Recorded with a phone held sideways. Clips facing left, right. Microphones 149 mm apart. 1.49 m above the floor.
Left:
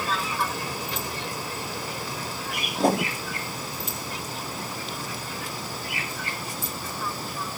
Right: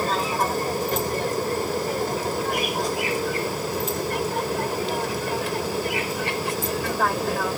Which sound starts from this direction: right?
An aircraft, at 0.0 s.